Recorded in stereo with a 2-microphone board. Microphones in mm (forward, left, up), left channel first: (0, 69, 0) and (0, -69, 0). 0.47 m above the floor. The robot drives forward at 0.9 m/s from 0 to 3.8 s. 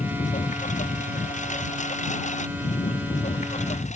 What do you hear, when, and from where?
0.0 s a lawn mower: 65° left (ahead or behind); by 4.0 s 60° left (ahead or behind)